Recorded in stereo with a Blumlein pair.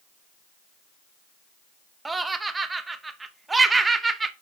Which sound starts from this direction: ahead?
Laughter, at 2.0 s.